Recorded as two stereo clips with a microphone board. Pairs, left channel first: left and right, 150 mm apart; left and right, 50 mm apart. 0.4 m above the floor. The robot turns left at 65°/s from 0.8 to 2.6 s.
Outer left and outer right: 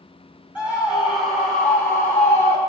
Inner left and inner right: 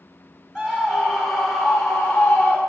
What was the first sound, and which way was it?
A scream, 10° right (ahead or behind).